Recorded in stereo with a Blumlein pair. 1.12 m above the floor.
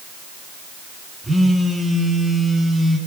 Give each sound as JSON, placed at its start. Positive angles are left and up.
{"t": 1.2, "sound": "a phone buzzing", "azimuth_deg": -5, "distance_m": 7.0}